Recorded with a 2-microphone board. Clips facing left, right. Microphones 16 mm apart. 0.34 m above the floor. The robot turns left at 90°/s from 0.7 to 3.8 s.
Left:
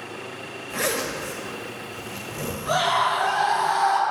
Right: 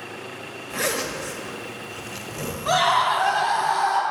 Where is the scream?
80° right, 3 m; by 4.0 s straight behind, 3 m.